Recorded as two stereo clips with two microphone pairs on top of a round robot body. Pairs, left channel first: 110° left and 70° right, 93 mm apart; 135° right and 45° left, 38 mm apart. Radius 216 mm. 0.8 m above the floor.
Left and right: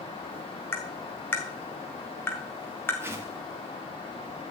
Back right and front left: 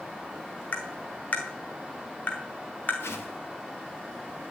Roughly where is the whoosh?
Behind right.